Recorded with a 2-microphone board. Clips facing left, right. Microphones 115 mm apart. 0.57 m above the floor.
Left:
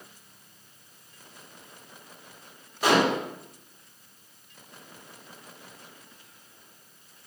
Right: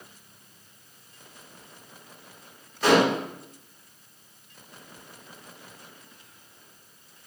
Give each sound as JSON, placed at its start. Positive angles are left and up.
{"t": 2.8, "sound": "dishes clattering", "side_deg": 10, "distance_m": 1.7}